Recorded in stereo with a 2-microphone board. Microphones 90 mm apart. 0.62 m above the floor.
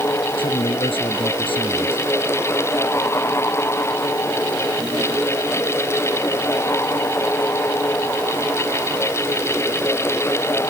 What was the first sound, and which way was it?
A man speaking, 85° left.